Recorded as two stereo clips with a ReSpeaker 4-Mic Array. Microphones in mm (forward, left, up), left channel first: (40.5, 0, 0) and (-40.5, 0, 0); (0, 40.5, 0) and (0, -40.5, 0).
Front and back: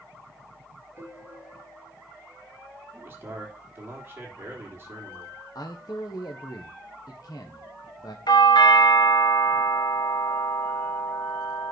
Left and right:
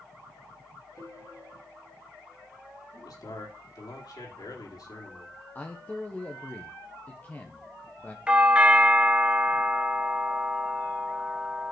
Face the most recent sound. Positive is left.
turn(degrees=-15)